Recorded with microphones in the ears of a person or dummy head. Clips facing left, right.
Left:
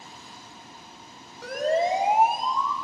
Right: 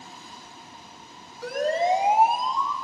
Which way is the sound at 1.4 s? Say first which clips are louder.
Even; centre (ahead or behind).